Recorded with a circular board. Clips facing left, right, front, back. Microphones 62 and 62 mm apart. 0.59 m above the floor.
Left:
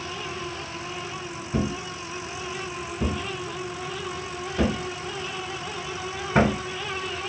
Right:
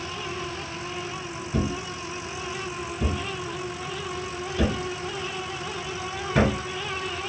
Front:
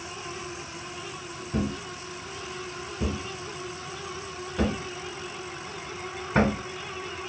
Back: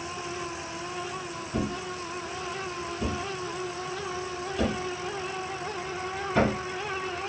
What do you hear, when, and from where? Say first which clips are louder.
1.5 s a thud: left 1 dB, front 1 dB; 45° left, 1.2 m